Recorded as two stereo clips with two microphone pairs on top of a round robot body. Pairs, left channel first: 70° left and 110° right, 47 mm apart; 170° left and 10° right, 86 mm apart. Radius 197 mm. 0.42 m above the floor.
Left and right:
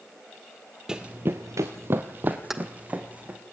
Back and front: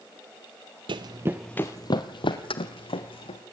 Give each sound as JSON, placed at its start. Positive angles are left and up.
{"t": 0.9, "sound": "running footsteps", "azimuth_deg": -45, "distance_m": 0.7}
{"t": 2.5, "sound": "keys jangling", "azimuth_deg": 160, "distance_m": 1.7}